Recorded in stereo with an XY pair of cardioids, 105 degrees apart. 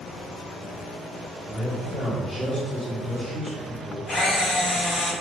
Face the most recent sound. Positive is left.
turn(degrees=45)